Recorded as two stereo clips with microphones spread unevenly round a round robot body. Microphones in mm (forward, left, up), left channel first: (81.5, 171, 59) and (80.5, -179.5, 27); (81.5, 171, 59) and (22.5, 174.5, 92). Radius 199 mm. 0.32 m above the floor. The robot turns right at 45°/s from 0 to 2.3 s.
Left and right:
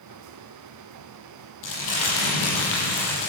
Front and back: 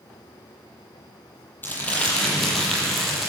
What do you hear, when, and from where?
1.6 s crumpling: 55° left, 8.5 m; by 3.3 s 85° left, 8.5 m